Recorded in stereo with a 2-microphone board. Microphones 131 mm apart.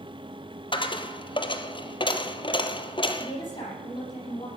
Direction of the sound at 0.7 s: 40° left (ahead or behind).